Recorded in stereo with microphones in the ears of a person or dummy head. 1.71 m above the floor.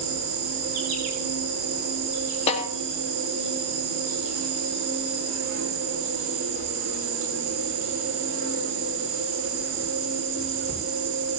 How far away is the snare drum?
About 4 m.